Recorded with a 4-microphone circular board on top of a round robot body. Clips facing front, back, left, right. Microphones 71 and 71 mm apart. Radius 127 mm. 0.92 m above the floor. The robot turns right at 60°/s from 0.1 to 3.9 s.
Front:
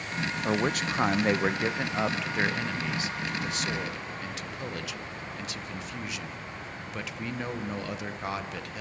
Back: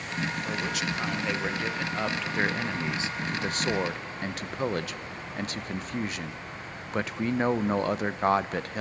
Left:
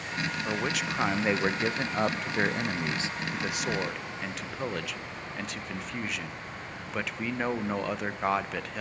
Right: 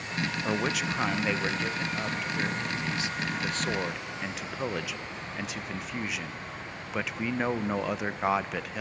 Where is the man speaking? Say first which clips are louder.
Front 3 dB, right 3 dB; 20° right, 1.0 m; by 8.8 s 175° right, 1.0 m.